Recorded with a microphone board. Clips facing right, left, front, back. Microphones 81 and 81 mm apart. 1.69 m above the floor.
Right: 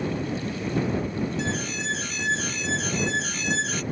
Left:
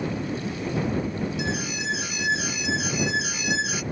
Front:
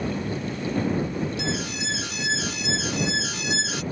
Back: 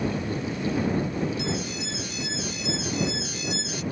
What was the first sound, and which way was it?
An alarm, 10° left.